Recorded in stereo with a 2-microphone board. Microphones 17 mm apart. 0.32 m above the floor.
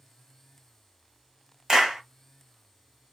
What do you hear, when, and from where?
1.7 s a clap: 40° right (ahead or behind), 1.4 m